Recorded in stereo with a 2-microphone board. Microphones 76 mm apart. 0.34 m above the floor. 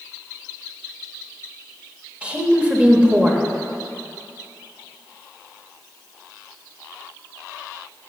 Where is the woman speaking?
15° right (ahead or behind), 0.9 m.